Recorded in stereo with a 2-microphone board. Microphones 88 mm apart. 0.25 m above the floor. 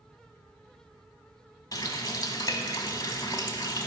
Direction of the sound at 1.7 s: 50° left (ahead or behind).